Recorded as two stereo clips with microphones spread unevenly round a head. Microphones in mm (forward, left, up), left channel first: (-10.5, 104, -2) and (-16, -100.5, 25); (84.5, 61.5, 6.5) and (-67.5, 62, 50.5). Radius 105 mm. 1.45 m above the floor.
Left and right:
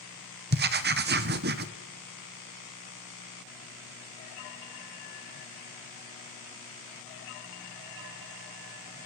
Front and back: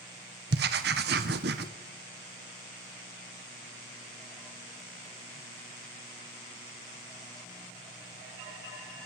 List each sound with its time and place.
0.5 s writing: 135° right, 1.3 m